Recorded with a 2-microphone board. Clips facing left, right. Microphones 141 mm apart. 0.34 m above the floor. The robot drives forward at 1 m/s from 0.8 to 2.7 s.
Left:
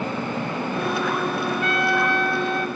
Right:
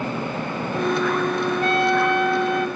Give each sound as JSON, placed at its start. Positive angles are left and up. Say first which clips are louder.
{"t": 1.6, "sound": "a trumpet", "louder": "right 4 dB", "side_deg": -30, "distance_m": 0.5}